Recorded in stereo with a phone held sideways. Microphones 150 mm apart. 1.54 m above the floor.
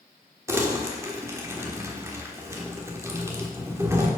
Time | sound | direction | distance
0.5 | crumpling | 15° right (ahead or behind) | 1.1 m